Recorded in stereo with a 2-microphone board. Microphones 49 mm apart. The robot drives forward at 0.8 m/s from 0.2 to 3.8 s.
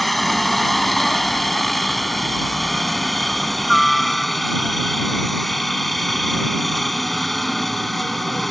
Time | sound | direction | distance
0.0 | a helicopter | centre (ahead or behind) | ?